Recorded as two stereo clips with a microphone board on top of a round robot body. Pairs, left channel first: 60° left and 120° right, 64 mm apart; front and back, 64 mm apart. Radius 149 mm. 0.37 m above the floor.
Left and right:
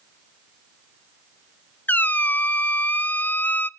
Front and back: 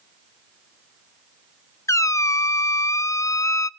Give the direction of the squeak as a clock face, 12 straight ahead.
12 o'clock.